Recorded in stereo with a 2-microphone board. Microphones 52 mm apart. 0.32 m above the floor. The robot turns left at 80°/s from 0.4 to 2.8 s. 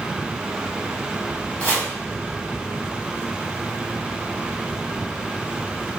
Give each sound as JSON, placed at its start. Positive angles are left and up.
{"t": 1.6, "sound": "chopping", "side_deg": 25, "distance_m": 0.7}